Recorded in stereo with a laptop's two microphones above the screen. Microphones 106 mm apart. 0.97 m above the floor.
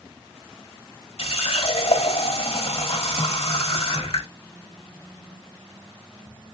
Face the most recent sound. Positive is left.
turn(degrees=70)  # may be behind; listen again after turning